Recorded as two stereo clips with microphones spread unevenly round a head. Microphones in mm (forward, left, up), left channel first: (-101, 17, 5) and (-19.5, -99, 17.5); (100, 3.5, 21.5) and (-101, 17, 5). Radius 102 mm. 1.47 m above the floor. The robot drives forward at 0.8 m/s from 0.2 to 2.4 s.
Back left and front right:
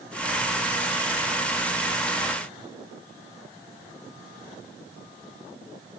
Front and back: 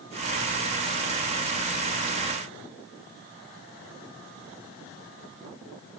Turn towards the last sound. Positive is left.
No sound to turn to.